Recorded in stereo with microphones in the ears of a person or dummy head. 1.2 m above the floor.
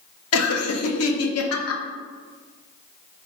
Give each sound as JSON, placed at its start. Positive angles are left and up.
{"t": 0.3, "sound": "laughter", "side_deg": 80, "distance_m": 0.8}